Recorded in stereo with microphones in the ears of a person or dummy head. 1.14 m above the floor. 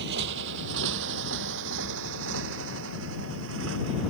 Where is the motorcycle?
65° right (ahead or behind); by 4.1 s 75° right (ahead or behind).